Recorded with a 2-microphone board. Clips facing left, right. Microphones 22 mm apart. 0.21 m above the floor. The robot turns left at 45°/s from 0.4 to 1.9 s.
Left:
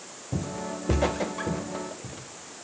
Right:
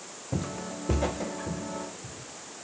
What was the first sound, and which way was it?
Footsteps, 25° right (ahead or behind).